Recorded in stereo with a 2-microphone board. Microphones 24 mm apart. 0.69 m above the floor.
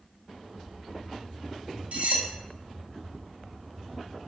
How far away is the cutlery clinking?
About 0.6 m.